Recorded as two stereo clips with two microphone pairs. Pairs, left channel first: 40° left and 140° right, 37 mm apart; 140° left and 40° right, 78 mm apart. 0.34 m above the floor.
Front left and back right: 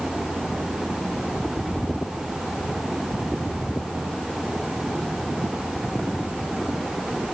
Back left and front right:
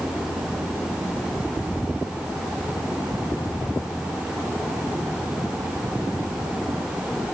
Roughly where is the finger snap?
No finger snap in this recording.